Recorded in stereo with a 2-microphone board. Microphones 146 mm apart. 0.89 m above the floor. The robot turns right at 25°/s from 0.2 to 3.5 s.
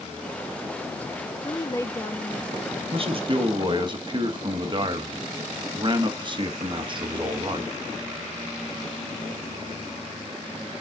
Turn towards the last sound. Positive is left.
turn(degrees=-35)  # may be behind; listen again after turning